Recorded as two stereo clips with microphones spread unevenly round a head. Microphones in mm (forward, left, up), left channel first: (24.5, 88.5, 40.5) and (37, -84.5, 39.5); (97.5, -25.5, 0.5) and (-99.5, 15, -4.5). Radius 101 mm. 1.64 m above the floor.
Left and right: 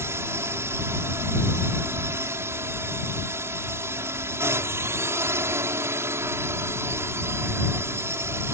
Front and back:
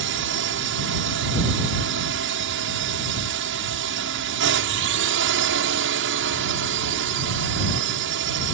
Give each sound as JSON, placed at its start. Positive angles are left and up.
{"t": 0.0, "sound": "a drone", "azimuth_deg": -165}